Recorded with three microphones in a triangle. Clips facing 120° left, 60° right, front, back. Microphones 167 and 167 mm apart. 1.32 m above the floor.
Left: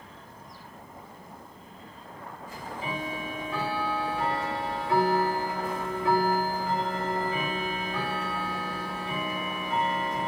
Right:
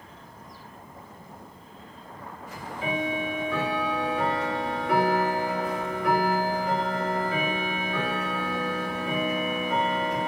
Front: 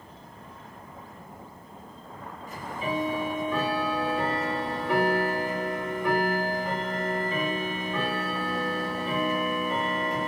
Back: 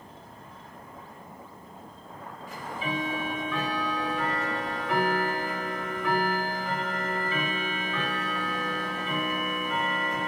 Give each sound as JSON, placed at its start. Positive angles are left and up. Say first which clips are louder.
{"t": 2.5, "sound": "ticking", "louder": "right 4 dB, front 2 dB", "azimuth_deg": -50, "distance_m": 2.0}